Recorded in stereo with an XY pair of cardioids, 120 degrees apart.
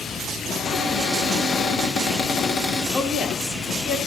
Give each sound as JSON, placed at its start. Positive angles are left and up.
{"t": 0.5, "sound": "a cupboard door", "azimuth_deg": 60, "distance_m": 3.0}
{"t": 2.9, "sound": "a woman speaking", "azimuth_deg": 40, "distance_m": 2.5}